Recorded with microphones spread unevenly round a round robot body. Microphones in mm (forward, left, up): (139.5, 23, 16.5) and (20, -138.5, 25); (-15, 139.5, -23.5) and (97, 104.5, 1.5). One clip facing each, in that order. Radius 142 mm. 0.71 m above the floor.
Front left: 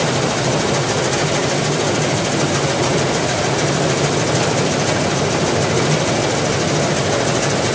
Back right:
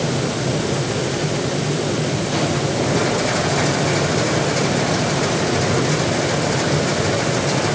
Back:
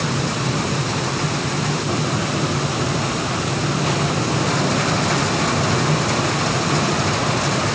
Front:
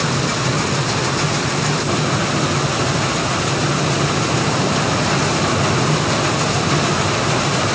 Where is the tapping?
No tapping in this recording.